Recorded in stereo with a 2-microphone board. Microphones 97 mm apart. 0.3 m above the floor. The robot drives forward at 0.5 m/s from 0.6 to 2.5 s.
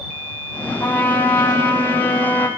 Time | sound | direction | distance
0.8 | a trumpet | 20° left (ahead or behind) | 3 m